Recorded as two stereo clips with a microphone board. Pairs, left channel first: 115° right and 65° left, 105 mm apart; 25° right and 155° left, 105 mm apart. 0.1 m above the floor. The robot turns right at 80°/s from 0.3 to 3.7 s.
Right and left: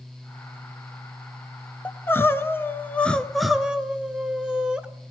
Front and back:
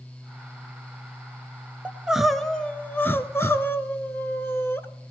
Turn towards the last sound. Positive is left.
turn(degrees=0)